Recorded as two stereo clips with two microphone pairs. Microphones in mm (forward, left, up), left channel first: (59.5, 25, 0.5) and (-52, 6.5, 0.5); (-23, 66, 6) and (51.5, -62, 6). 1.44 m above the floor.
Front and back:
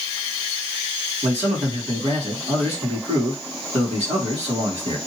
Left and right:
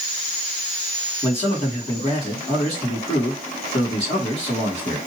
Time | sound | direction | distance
1.2 | a man speaking | 165° left | 2.5 m